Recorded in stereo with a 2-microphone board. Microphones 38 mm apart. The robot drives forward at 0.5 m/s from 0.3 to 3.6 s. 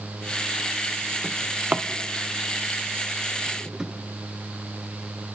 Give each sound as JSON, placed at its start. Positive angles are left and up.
{"t": 1.2, "sound": "a drawer", "side_deg": -35, "distance_m": 0.7}